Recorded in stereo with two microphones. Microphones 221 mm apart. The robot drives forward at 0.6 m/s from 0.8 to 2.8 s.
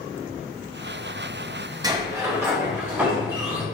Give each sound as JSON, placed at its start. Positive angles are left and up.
{"t": 1.8, "sound": "a sliding door", "side_deg": -15, "distance_m": 0.8}